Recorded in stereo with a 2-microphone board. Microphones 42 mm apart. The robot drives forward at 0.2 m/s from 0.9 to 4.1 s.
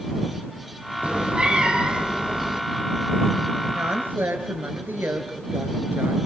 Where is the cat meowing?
25° right (ahead or behind), 1.2 m; by 2.6 s 20° right (ahead or behind), 1.5 m.